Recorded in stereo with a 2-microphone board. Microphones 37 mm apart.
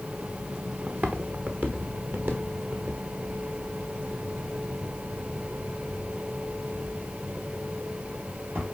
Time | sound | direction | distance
0.9 | footsteps | 50° right (ahead or behind) | 1.1 m